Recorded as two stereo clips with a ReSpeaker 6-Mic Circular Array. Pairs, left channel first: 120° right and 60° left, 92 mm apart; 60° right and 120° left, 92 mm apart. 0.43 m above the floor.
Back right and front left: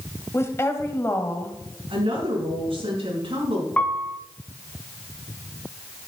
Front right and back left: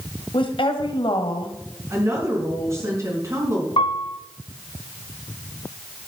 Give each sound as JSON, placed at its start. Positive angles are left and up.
{"t": 0.3, "sound": "a woman speaking", "azimuth_deg": -60, "distance_m": 1.8}
{"t": 1.9, "sound": "a woman speaking", "azimuth_deg": 65, "distance_m": 5.0}
{"t": 3.8, "sound": "a piano", "azimuth_deg": -45, "distance_m": 1.0}